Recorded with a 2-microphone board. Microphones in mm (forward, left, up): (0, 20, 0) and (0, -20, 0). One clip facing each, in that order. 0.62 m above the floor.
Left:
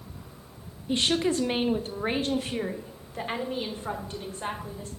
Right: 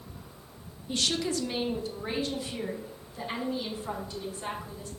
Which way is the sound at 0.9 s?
25° left (ahead or behind).